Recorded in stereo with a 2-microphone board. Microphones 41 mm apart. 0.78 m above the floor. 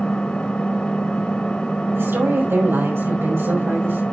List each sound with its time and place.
0.0 s an engine running: 25° left (ahead or behind), 2.5 m
1.9 s a woman speaking: 80° right, 6 m